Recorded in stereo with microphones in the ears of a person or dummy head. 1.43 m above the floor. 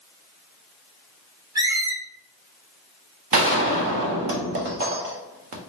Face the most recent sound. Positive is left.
turn(degrees=-35)  # may be behind; listen again after turning